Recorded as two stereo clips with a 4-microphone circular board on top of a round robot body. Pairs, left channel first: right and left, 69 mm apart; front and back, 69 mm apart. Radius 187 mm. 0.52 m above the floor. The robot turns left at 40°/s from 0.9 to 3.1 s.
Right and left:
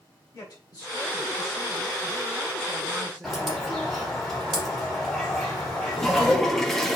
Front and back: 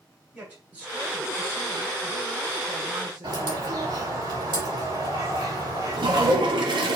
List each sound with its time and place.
0.3 s a man speaking: 115° right, 5 m; by 4.2 s 160° left, 5 m
3.2 s a bird: straight behind, 5.5 m
6.0 s a toilet flushing: straight behind, 1.4 m